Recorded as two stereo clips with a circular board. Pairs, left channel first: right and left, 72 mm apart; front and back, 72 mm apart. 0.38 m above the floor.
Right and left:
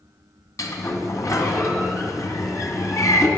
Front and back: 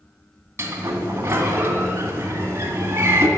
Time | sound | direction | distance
0.6 | a sliding door | 125° right | 2.0 m